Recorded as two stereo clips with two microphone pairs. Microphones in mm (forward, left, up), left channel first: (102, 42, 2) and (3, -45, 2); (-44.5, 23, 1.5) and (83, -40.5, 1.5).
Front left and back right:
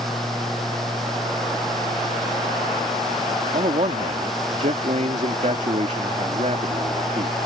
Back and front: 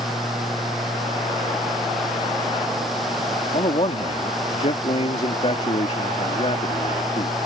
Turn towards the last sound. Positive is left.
turn(degrees=-165)